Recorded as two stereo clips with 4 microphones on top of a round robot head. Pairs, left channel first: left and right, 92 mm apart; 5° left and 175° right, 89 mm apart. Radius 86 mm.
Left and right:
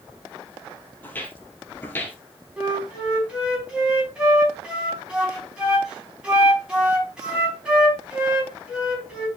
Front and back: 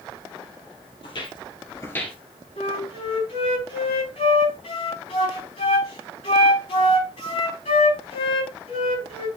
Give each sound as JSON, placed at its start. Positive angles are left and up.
{"t": 1.0, "sound": "footsteps", "azimuth_deg": 25, "distance_m": 1.9}
{"t": 2.6, "sound": "a flute", "azimuth_deg": -10, "distance_m": 5.5}